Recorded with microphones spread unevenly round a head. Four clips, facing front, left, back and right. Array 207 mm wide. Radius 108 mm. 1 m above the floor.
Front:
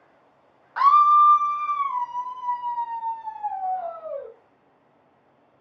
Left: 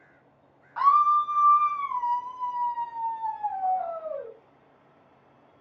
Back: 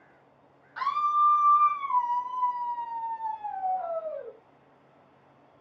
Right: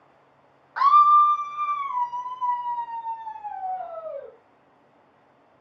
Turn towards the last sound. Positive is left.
turn(degrees=30)